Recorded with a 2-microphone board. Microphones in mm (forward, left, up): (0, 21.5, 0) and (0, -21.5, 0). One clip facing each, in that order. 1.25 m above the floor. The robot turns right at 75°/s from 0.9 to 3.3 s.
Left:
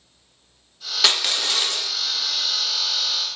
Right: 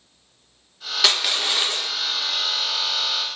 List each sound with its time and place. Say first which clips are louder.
1.0 s crushing: even; centre (ahead or behind), 0.5 m; by 1.9 s 25° right (ahead or behind), 0.5 m